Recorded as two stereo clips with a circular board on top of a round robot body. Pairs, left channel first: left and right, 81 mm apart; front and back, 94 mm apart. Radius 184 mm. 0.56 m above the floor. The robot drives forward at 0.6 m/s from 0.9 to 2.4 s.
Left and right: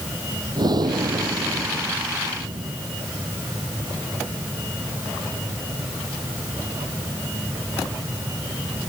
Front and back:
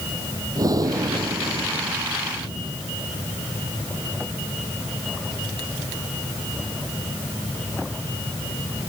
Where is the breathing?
130° right; by 2.8 s 135° right.